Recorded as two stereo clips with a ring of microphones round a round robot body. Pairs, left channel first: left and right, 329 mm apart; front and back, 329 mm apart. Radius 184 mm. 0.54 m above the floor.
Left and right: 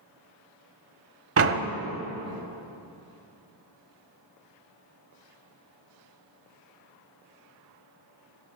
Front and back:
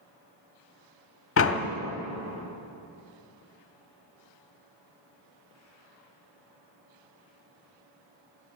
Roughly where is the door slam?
Ahead right.